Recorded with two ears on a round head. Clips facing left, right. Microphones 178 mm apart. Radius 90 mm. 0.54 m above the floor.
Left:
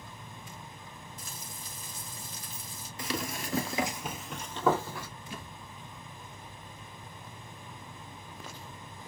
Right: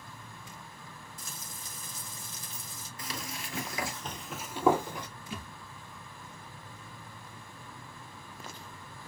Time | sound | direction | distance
1.2 | frying | 80° right | 2.5 m
3.0 | running footsteps | 55° left (ahead or behind) | 0.8 m
5.3 | a thud | 70° right (ahead or behind) | 2 m